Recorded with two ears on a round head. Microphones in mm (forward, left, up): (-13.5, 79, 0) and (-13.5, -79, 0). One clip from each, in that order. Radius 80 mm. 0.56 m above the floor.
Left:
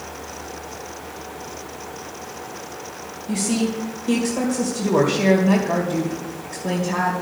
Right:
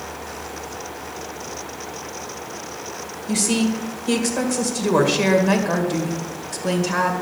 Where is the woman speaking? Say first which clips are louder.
Right 2 dB; 40° right (ahead or behind), 2.0 m.